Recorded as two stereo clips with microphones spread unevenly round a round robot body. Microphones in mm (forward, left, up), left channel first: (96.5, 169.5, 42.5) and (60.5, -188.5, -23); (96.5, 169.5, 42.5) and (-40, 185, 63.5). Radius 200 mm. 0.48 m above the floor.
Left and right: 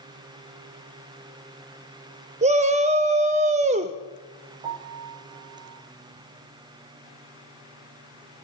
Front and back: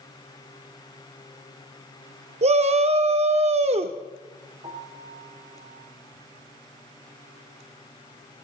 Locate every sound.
2.4 s a shout: 150° right, 1.0 m
4.6 s a piano: 110° right, 4.5 m